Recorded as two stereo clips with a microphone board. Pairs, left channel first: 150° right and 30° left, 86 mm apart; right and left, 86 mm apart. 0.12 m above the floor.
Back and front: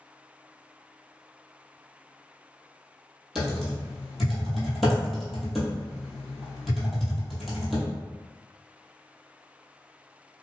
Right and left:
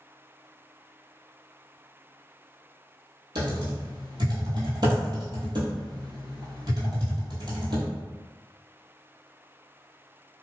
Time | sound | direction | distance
3.4 | typing on a keyboard | 120° left | 1.2 m